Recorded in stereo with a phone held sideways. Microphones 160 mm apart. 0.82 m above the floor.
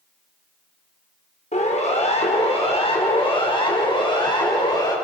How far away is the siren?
About 3.5 m.